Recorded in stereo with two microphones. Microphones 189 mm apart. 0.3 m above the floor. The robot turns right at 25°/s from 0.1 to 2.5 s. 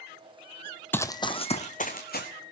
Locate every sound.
0.9 s running footsteps: 10° left (ahead or behind), 0.5 m; by 2.3 s 55° left (ahead or behind), 1.9 m